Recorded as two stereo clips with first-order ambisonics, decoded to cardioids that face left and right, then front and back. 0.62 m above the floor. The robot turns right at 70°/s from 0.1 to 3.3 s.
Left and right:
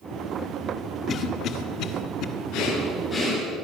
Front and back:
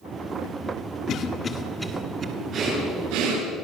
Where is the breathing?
120° left, 8.5 m; by 3.5 s 175° left, 8.5 m.